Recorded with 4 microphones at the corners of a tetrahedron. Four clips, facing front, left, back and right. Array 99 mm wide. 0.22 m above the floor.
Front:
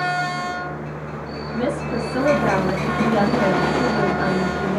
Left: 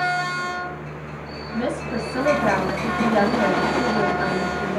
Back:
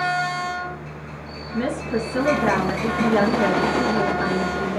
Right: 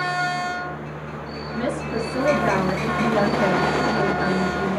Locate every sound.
1.5 s a woman speaking: 80° left, 1.1 m